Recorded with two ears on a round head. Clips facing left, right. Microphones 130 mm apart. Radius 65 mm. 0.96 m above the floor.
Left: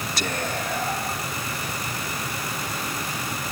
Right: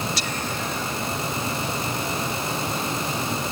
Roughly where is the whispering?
Left.